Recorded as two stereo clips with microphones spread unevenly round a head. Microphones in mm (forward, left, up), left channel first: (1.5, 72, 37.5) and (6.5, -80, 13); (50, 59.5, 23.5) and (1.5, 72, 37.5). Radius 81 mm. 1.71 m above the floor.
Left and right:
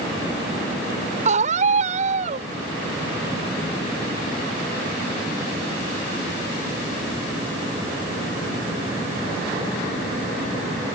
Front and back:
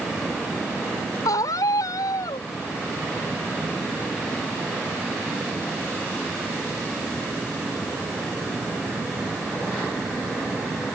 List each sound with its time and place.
1.2 s a scream: 40° right